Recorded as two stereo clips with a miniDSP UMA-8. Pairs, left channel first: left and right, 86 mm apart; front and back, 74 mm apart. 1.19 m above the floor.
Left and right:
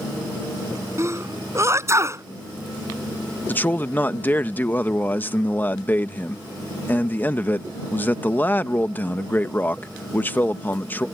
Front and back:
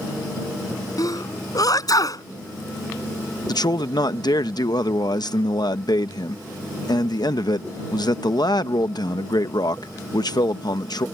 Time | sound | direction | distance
1.0 | a sneeze | 35° right | ?
3.5 | a man speaking | 20° left | ?